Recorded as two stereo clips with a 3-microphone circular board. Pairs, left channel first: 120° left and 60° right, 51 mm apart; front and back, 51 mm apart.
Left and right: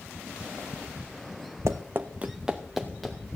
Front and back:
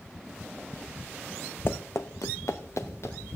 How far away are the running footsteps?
About 0.9 m.